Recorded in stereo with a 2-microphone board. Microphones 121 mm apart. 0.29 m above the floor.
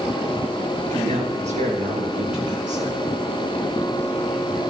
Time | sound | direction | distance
0.9 | a man speaking | 65° right (ahead or behind) | 5.5 m